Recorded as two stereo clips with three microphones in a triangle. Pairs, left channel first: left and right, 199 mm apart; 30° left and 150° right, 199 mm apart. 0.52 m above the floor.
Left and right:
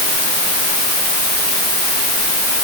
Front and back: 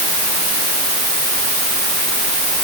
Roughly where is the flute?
I don't hear a flute.